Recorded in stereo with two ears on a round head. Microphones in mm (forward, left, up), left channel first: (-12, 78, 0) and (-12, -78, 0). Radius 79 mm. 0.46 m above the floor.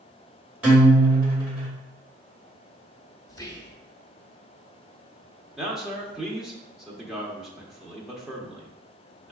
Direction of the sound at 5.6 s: Centre (ahead or behind).